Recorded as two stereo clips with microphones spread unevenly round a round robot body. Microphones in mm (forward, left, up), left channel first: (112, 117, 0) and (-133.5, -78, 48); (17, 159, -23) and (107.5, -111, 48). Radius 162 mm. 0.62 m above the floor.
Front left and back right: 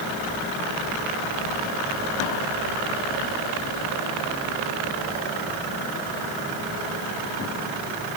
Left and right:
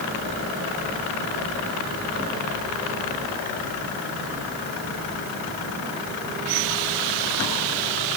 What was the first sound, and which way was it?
Only background noise.